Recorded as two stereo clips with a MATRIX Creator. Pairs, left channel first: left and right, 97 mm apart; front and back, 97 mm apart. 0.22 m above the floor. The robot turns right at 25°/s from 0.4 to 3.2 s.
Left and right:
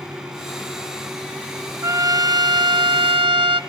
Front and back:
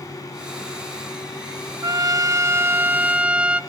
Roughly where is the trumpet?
Behind right.